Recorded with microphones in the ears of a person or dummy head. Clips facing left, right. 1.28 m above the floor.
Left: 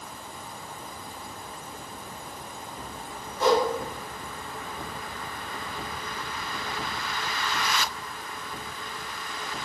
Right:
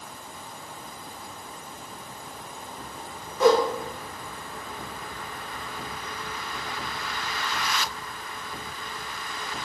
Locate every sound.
3.4 s a whoosh: 60° right (ahead or behind), 0.7 m